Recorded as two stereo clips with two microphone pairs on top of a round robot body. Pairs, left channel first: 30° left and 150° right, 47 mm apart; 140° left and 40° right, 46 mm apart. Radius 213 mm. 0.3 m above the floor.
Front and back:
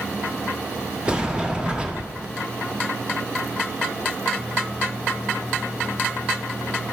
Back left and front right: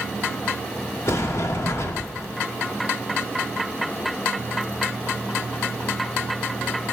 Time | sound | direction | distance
1.1 | a sliding door | 140° left | 1.1 m